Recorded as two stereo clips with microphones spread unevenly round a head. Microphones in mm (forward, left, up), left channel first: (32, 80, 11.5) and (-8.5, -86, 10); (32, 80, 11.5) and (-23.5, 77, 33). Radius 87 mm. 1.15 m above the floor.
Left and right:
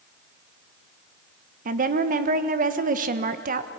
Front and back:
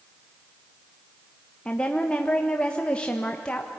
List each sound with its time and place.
1.6 s a woman speaking: 65° right, 1.1 m